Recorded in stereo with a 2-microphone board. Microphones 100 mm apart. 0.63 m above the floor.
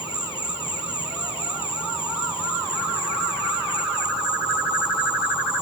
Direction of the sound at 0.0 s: 65° left (ahead or behind).